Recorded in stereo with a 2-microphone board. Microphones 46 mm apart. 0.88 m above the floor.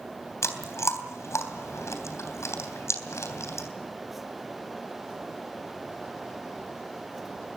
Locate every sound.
0.4 s chewing: 85° left, 3 m